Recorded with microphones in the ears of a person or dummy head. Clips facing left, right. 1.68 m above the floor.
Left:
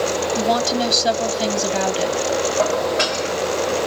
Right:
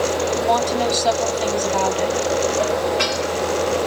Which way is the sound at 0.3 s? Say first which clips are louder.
Left 1 dB; 30° left (ahead or behind).